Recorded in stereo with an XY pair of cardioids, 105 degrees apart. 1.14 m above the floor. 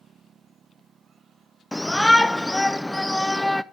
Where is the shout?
10° left, 0.5 m.